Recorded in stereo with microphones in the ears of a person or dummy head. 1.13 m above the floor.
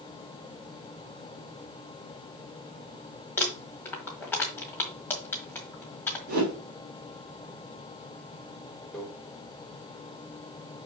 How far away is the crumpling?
About 1.3 m.